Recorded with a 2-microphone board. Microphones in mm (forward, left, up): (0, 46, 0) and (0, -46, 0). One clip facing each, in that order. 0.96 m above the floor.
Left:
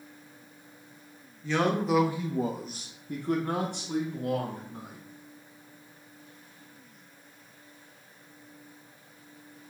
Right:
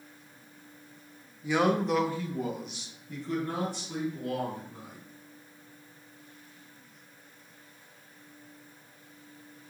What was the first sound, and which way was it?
A man speaking, 15° right (ahead or behind).